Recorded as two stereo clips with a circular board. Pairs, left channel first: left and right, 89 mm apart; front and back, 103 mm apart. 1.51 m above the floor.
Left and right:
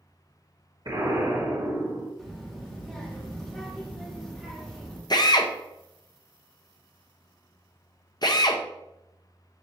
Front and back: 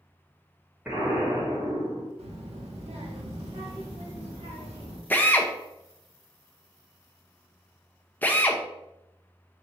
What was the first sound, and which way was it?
An explosion, 105° right.